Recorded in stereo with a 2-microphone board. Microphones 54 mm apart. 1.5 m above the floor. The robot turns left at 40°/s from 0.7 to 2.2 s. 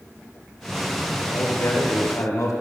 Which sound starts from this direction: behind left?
A man speaking, at 1.3 s.